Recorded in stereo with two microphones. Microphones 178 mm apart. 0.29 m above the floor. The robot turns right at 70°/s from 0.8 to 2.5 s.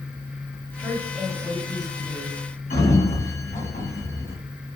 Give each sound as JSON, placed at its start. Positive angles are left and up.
{"t": 0.8, "sound": "a woman speaking", "azimuth_deg": -40, "distance_m": 1.8}
{"t": 2.7, "sound": "a sliding door", "side_deg": 55, "distance_m": 2.0}